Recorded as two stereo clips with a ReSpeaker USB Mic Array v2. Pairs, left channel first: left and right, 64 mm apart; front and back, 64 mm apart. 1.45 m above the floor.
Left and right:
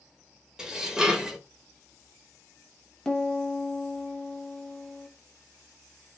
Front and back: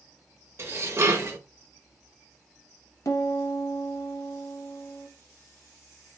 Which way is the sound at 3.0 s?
15° left.